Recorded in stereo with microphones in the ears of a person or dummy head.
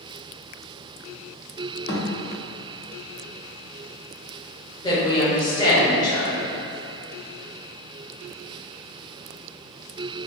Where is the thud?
60° left (ahead or behind), 1.2 m.